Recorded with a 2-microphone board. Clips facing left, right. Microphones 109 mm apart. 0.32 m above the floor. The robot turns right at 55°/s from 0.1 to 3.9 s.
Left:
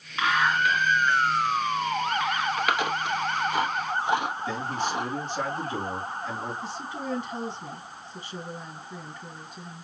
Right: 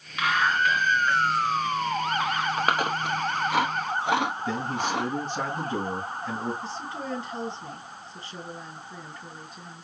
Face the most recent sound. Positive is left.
turn(degrees=10)  # may be behind; listen again after turning